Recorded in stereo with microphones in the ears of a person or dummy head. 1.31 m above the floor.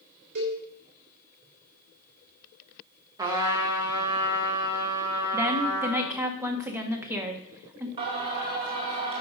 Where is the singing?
25° right (ahead or behind), 1.8 m.